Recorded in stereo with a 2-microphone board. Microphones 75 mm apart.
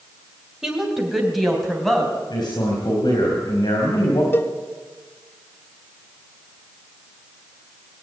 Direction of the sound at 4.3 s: 30° left (ahead or behind).